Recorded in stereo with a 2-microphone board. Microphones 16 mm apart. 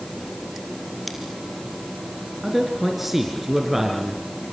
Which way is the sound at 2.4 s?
15° right (ahead or behind).